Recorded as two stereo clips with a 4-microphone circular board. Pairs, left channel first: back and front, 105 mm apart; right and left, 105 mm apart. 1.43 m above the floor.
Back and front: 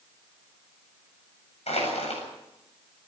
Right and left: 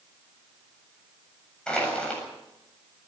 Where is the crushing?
170° right, 7.5 m.